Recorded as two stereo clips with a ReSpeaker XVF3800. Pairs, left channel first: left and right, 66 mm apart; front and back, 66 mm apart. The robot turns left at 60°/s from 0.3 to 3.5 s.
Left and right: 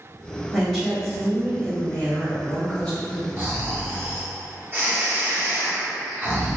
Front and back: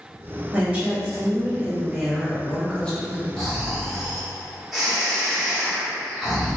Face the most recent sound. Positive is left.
turn(degrees=-95)